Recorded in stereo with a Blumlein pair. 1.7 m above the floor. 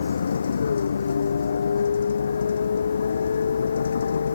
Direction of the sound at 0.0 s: 70° left.